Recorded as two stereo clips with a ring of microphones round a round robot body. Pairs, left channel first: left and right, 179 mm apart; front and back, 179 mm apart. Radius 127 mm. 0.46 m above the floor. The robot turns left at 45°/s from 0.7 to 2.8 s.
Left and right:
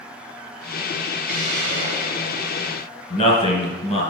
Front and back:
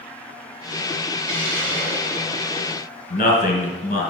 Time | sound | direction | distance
1.3 | a hiss | 170° right | 2.5 m
3.1 | a man speaking | 45° left | 2.5 m